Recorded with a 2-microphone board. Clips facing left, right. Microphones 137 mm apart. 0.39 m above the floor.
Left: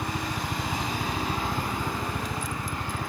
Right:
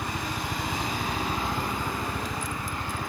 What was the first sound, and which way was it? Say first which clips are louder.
A helicopter: left 1 dB; 25° left (ahead or behind).